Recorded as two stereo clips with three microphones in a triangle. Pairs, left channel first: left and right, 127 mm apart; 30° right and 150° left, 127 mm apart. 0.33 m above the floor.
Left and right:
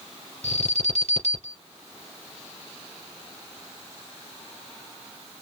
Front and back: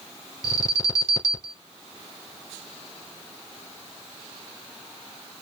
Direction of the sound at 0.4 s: 90° right.